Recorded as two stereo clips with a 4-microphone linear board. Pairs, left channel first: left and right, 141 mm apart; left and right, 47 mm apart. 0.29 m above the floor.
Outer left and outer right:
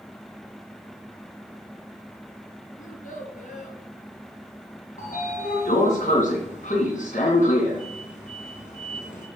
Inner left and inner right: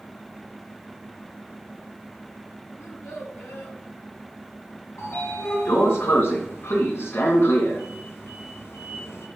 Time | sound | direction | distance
2.8 | a child speaking | 70° left (ahead or behind) | 3.5 m
5.0 | a sliding door | 65° left (ahead or behind) | 2.5 m